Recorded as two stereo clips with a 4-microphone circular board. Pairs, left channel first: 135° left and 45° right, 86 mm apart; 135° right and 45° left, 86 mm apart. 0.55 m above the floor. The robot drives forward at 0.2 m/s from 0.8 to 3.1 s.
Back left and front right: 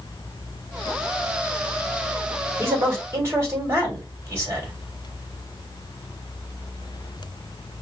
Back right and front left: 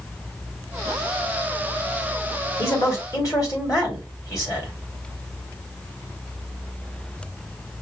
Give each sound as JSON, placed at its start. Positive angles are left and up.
{"t": 2.6, "sound": "a man speaking", "azimuth_deg": -95, "distance_m": 2.0}